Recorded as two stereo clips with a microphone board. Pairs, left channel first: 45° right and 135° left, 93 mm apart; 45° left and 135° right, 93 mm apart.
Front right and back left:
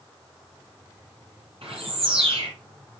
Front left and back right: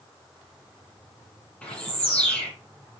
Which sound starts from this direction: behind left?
A bird, at 1.6 s.